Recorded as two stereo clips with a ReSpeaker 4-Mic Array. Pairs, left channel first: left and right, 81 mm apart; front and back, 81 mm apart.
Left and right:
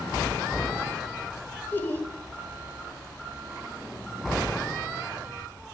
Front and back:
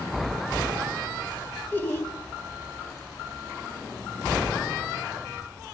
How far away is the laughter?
About 1.9 m.